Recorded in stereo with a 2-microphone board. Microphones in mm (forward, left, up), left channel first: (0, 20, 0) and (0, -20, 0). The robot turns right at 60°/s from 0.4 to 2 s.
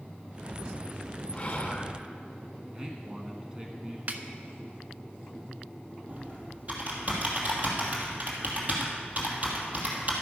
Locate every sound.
1.3 s whispering: 25° left (ahead or behind), 1.4 m; by 2.0 s 20° left (ahead or behind), 1.4 m
2.7 s a man speaking: 20° right (ahead or behind), 1.2 m
4.1 s a snare drum: 45° right (ahead or behind), 0.7 m
6.1 s typing on a keyboard: 45° right (ahead or behind), 2.5 m